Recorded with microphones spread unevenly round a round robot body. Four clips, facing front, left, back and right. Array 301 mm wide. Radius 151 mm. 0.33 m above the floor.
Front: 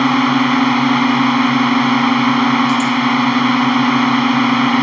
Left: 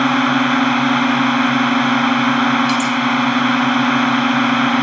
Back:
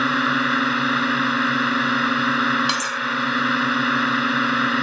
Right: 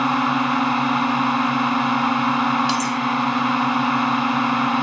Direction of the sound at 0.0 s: 10° left.